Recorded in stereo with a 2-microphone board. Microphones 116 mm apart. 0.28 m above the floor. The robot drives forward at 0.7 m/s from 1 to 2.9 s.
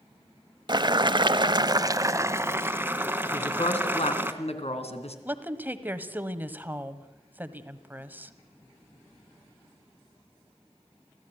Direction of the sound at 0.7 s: 40° right (ahead or behind).